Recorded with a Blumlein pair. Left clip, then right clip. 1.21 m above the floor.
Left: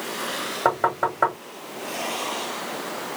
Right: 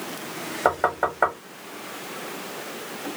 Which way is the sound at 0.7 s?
Straight ahead.